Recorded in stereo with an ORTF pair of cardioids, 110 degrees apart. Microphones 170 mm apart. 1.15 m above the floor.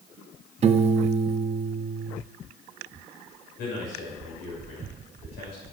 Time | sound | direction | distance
0.6 | a piano | 40° right | 0.8 m
3.6 | a man speaking | 70° left | 6 m